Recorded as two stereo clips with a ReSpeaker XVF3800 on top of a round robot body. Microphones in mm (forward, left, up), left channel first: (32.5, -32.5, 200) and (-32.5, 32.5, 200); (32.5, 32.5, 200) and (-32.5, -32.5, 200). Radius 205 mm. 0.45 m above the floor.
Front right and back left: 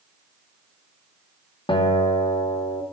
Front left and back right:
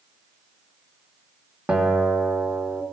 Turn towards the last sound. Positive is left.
turn(degrees=-55)